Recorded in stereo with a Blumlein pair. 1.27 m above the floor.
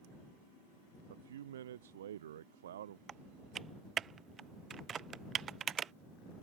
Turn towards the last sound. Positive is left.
turn(degrees=-20)